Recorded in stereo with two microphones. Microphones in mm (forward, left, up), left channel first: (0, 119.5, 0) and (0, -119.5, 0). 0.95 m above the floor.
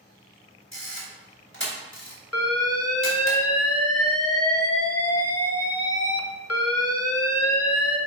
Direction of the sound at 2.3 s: 90° left.